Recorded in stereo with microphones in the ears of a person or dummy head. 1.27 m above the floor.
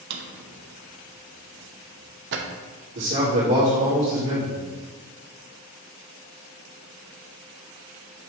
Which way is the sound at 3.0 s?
70° right (ahead or behind).